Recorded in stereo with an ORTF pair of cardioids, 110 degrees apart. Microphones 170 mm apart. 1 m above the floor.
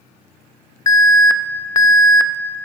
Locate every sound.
0.9 s an alarm: 20° left, 0.5 m